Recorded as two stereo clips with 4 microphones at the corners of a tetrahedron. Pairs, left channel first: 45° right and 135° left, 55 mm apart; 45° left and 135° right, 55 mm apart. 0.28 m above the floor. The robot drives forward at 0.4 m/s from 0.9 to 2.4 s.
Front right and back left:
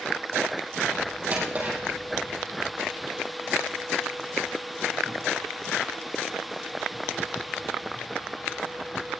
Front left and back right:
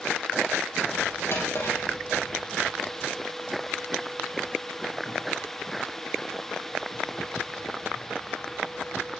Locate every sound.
1.3 s a drawer: 80° left, 4.5 m; by 9.2 s 85° left, 4.5 m